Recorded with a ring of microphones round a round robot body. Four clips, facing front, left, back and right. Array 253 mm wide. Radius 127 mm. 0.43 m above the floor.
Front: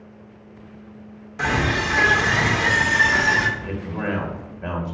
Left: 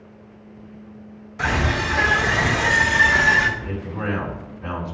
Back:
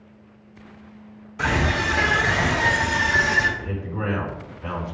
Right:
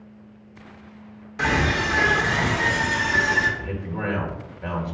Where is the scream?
60° right, 1.3 m; by 3.5 s 60° left, 1.6 m.